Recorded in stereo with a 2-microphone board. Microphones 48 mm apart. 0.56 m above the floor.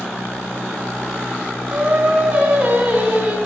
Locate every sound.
1.7 s singing: 25° right (ahead or behind), 5 m